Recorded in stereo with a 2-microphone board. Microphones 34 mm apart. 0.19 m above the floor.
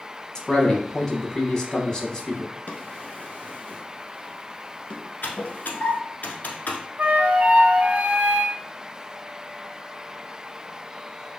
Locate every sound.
0.3 s a man speaking: 20° left (ahead or behind), 1.0 m
2.7 s a drawer: 50° left (ahead or behind), 1.0 m
5.2 s typing on a keyboard: 60° left (ahead or behind), 1.1 m
7.0 s a flute: 55° right (ahead or behind), 0.7 m